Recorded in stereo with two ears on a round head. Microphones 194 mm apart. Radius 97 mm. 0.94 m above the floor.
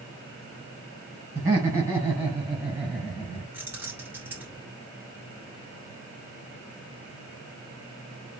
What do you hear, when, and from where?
1.4 s laughter: 15° right (ahead or behind), 4.5 m; by 3.4 s 5° right (ahead or behind), 5.5 m
3.5 s keys jangling: 10° right (ahead or behind), 2.5 m